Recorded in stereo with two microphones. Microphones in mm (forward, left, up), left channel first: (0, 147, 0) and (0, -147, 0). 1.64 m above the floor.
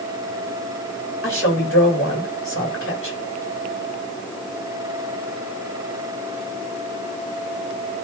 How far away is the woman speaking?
About 8.5 m.